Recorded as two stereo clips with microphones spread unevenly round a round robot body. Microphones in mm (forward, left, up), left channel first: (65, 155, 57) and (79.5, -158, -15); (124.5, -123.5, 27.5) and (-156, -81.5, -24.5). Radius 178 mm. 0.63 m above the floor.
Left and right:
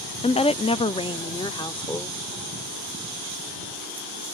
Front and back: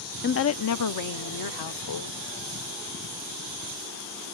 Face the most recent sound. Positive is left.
turn(degrees=10)